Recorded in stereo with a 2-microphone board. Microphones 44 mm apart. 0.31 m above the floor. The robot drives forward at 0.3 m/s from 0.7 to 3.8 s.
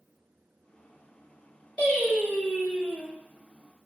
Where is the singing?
25° left (ahead or behind), 2.0 m; by 3.1 s 20° left (ahead or behind), 2.5 m.